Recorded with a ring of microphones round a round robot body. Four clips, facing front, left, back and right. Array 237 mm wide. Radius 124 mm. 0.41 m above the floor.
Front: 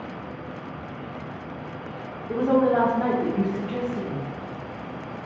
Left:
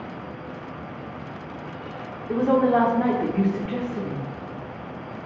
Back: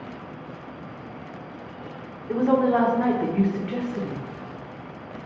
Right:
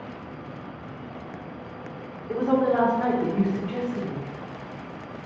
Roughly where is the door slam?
I don't hear a door slam.